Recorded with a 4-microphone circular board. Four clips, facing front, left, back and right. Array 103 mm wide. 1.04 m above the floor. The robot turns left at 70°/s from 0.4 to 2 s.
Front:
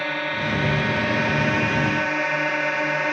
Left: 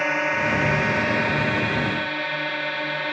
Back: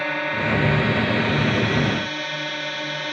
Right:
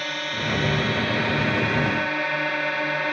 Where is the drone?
95° left; by 3.1 s 15° right.